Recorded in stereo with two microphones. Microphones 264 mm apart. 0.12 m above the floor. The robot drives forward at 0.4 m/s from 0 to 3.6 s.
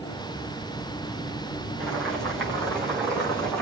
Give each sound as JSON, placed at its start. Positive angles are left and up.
{"t": 1.8, "sound": "boiling", "side_deg": 5, "distance_m": 5.0}